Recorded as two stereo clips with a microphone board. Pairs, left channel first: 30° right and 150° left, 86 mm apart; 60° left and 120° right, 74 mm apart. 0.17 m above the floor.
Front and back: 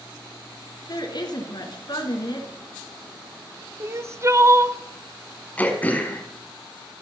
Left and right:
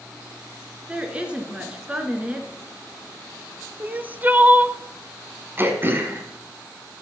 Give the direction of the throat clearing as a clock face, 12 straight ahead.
3 o'clock.